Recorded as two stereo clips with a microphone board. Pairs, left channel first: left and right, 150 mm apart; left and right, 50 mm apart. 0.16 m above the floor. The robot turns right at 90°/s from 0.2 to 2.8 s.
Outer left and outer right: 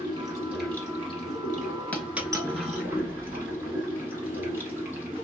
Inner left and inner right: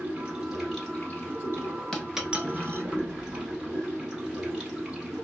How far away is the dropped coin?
About 0.7 m.